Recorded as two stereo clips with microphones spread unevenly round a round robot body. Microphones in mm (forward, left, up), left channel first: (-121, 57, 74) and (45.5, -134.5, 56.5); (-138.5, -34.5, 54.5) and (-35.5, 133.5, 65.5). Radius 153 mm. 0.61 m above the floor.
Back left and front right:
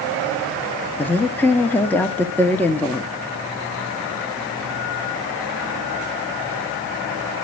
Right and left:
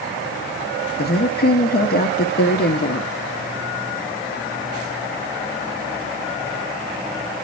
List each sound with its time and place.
1.0 s a woman speaking: 145° right, 1.1 m